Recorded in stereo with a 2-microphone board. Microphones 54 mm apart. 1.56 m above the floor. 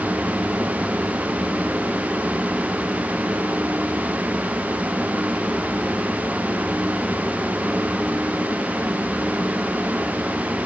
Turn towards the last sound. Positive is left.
No sound to turn to.